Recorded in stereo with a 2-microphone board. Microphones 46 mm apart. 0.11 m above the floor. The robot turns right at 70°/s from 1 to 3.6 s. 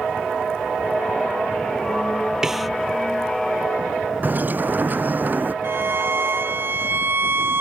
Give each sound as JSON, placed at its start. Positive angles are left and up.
{"t": 2.4, "sound": "a snare drum", "side_deg": -15}
{"t": 4.2, "sound": "a bird", "side_deg": -40}
{"t": 5.6, "sound": "a violin", "side_deg": -55}